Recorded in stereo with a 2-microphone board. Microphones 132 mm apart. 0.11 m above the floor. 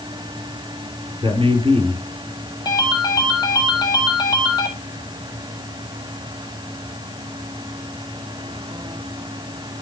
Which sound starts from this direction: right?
A man speaking, at 1.2 s.